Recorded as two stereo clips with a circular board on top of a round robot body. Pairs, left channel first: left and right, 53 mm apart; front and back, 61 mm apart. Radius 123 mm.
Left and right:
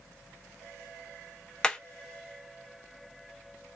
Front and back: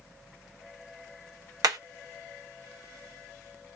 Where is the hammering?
170° left, 0.7 m.